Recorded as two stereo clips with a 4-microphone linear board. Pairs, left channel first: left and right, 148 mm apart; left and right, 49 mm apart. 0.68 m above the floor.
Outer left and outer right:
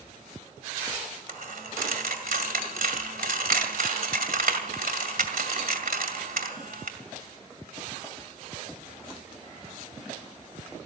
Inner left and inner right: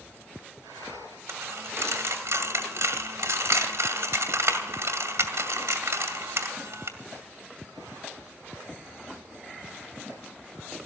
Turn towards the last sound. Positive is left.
turn(degrees=-75)  # may be behind; listen again after turning